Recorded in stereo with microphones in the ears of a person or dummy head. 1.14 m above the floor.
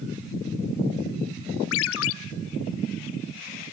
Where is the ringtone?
75° left (ahead or behind), 0.7 m.